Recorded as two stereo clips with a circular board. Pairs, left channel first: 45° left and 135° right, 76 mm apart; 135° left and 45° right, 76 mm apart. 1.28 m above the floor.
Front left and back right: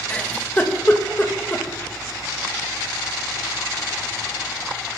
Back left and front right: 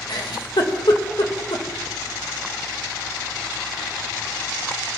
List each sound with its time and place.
0.1 s a giggle: 115° left, 1.8 m